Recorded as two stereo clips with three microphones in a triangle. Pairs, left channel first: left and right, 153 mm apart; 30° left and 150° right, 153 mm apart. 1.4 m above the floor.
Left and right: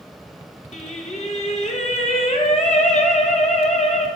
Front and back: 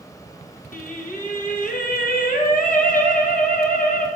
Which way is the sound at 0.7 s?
50° left.